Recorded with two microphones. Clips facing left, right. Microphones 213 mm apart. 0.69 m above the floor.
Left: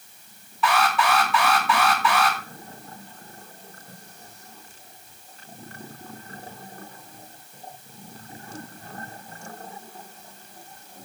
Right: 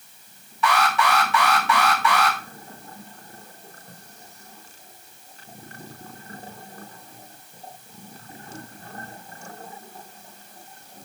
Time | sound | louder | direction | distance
0.6 | an alarm | even | centre (ahead or behind) | 3.5 m